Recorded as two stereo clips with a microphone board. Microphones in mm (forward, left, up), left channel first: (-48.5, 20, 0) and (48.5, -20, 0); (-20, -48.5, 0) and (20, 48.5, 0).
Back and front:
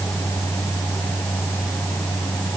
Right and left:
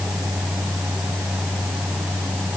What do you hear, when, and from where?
Only background noise.